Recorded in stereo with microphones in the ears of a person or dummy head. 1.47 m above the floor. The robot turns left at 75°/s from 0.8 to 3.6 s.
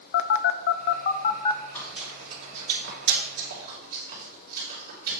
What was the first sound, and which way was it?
A phone buzzing, 65° left (ahead or behind).